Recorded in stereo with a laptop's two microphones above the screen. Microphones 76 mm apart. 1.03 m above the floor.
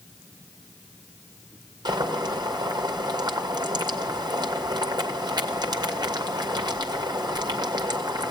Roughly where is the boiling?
Right.